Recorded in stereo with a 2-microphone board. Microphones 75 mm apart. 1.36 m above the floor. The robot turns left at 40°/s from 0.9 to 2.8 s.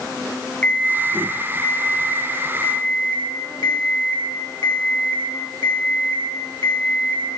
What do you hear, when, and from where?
0.6 s an alarm clock: 160° left, 1.9 m; by 7.2 s 85° left, 1.9 m